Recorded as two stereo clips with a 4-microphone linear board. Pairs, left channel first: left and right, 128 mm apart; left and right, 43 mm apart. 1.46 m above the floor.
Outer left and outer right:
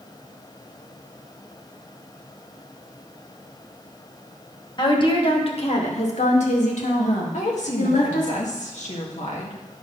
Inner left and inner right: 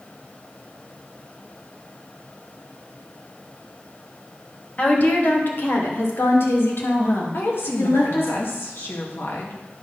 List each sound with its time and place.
4.8 s a woman speaking: 35° left (ahead or behind), 1.5 m; by 8.3 s 85° left, 2.5 m
7.3 s a woman speaking: 70° left (ahead or behind), 1.9 m